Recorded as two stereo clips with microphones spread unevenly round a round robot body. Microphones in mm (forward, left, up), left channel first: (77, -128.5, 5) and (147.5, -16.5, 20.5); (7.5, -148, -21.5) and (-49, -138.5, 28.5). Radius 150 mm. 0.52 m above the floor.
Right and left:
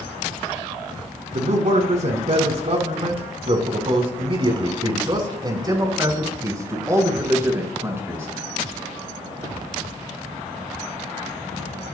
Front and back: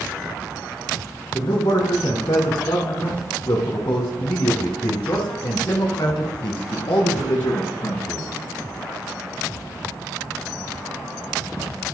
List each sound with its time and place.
1.3 s a man speaking: 40° left, 6 m; by 8.3 s 15° right, 8 m